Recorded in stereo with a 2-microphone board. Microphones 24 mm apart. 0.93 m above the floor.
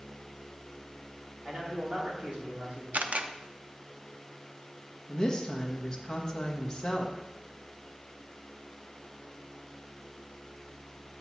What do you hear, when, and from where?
1.4 s a man speaking: 45° right (ahead or behind), 2.5 m
2.9 s a camera shutter: 75° right (ahead or behind), 0.6 m
5.1 s a woman speaking: 20° left (ahead or behind), 1.1 m